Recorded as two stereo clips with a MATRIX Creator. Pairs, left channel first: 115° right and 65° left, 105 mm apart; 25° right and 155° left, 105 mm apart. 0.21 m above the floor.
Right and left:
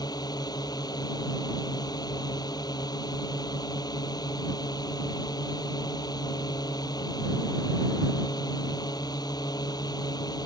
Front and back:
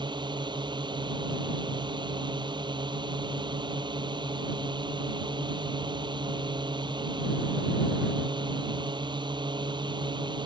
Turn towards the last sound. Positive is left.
turn(degrees=-160)